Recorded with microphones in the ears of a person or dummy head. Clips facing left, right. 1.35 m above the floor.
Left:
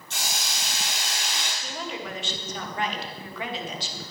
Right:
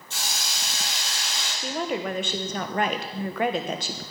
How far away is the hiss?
About 4 m.